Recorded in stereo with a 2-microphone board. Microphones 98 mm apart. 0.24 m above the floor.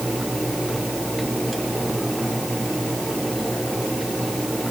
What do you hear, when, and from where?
Only background noise.